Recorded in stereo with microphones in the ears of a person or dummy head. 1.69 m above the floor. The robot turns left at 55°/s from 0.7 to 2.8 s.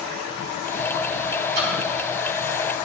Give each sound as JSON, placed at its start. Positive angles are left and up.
{"t": 1.6, "sound": "a splash", "side_deg": -60, "distance_m": 1.1}